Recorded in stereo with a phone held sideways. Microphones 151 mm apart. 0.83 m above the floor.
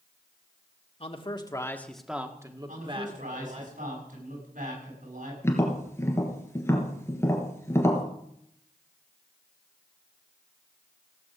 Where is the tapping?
20° left (ahead or behind), 3 m.